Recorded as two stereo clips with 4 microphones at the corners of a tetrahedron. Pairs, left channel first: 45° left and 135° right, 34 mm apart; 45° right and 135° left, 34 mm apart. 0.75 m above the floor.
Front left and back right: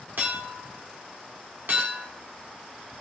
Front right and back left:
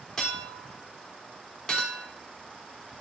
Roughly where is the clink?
Behind right.